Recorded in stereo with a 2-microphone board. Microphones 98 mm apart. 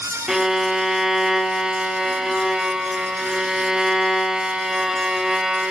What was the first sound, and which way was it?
A violin, 5° right (ahead or behind).